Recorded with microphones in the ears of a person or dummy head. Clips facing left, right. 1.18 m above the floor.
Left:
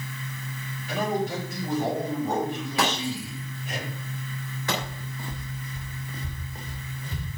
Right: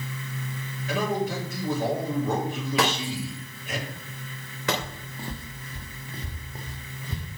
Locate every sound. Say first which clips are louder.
0.9 s a man speaking: even; 60° right (ahead or behind), 6 m
2.8 s breaking glass: even; 65° right (ahead or behind), 3 m
4.8 s footsteps: left 1 dB; 25° right (ahead or behind), 1.7 m; by 7.4 s 30° right (ahead or behind), 4 m